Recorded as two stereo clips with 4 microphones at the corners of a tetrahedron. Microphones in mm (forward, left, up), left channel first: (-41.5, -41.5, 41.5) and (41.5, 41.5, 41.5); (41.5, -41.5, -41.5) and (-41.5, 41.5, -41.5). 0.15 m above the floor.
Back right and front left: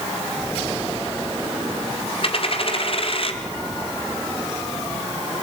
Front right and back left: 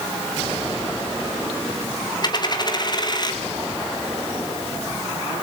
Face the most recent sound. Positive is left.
turn(degrees=-100)